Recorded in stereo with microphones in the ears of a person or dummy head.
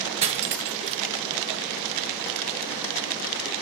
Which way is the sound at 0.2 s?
30° right (ahead or behind).